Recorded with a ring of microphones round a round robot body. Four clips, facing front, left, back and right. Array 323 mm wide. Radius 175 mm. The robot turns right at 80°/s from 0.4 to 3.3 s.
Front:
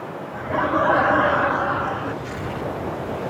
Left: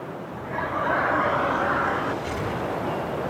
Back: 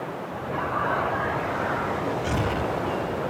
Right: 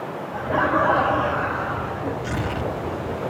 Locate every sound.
0.3 s laughter: 75° right, 1.5 m; by 2.1 s 65° left, 1.5 m
2.2 s tearing paper: 140° right, 1.3 m; by 2.7 s 100° right, 1.3 m